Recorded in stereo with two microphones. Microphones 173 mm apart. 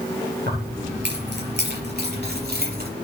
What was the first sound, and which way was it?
Keys jangling, 75° right (ahead or behind).